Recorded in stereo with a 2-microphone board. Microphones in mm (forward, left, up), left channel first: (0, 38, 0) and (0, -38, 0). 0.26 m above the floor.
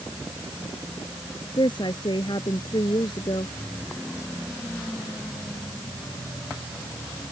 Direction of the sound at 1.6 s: 70° left (ahead or behind).